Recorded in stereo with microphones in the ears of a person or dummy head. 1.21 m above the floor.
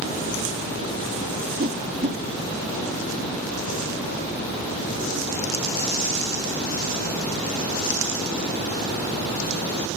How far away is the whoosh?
About 3 m.